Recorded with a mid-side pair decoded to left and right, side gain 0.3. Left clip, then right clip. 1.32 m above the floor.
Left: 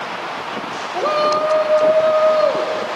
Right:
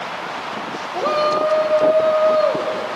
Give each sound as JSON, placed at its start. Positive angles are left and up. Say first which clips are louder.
{"t": 0.9, "sound": "a shout", "louder": "left 1 dB", "azimuth_deg": 5, "distance_m": 2.0}